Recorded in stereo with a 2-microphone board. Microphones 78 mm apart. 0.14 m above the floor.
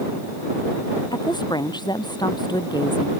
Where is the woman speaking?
80° left.